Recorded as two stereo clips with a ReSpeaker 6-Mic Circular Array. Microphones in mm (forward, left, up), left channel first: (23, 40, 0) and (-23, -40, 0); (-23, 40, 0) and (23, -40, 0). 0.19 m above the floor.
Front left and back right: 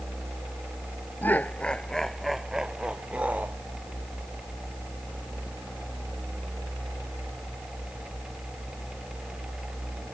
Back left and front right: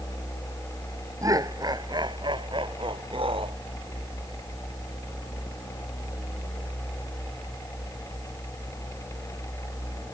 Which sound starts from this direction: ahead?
Laughter, at 1.2 s.